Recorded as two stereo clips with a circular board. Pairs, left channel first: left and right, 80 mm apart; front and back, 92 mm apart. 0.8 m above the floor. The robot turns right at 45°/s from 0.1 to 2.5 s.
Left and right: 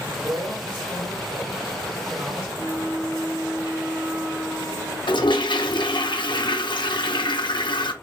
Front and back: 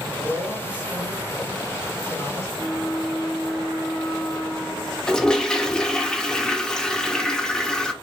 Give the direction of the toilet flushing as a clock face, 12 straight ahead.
9 o'clock.